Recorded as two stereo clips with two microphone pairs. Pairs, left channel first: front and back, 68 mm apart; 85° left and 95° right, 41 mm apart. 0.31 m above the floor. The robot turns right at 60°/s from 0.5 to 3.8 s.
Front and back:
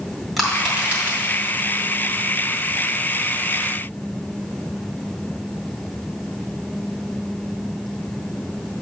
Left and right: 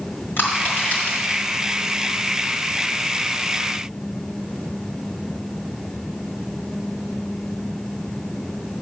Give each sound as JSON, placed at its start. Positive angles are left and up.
{"t": 0.4, "sound": "crushing", "azimuth_deg": 90, "distance_m": 2.5}